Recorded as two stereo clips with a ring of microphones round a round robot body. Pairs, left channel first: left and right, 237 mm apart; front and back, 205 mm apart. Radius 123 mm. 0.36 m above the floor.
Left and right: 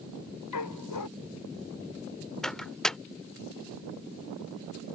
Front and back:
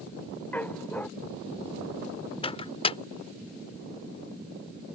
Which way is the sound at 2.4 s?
5° left.